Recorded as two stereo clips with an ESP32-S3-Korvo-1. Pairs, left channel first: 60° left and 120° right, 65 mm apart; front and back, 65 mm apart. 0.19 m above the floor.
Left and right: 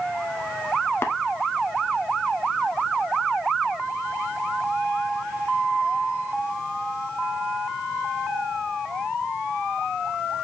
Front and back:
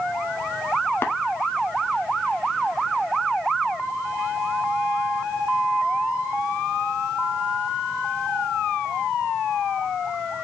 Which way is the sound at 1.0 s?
40° left.